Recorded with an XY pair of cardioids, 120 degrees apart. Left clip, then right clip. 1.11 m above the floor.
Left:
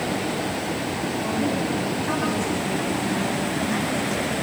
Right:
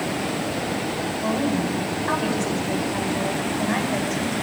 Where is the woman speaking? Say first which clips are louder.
Right 2 dB; 25° right, 9 m.